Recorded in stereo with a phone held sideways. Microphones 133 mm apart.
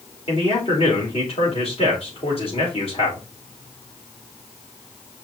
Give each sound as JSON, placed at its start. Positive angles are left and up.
{"t": 0.3, "sound": "a man speaking", "side_deg": 50, "distance_m": 4.5}